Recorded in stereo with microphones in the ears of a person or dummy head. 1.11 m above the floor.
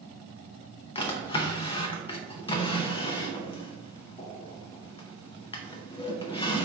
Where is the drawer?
30° left (ahead or behind), 0.5 m.